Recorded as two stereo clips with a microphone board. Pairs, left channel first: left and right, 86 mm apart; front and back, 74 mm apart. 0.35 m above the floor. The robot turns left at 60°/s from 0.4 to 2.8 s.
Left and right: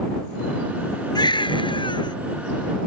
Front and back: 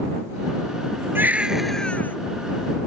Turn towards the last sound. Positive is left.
turn(degrees=20)